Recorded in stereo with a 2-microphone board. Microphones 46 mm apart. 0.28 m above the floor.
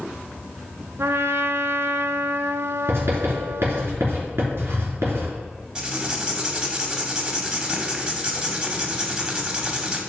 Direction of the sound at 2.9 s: 65° right (ahead or behind).